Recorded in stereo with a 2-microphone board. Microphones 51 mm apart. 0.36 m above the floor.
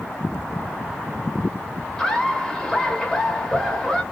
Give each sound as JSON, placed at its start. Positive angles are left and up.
{"t": 2.0, "sound": "laughter", "side_deg": 10, "distance_m": 1.3}